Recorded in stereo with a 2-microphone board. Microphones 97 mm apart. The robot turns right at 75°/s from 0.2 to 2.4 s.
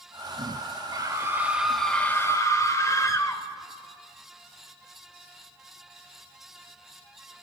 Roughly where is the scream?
Ahead right.